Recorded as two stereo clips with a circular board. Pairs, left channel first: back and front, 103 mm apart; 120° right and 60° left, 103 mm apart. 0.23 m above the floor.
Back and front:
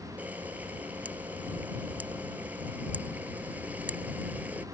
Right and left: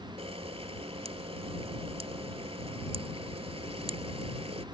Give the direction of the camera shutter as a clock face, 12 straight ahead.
10 o'clock.